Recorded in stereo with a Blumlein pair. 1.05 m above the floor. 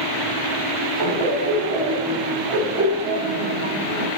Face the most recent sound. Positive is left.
turn(degrees=-35)